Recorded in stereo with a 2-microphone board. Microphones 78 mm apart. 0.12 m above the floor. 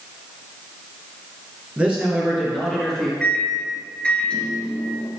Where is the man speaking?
20° right (ahead or behind), 2 m; by 3.1 s centre (ahead or behind), 3 m.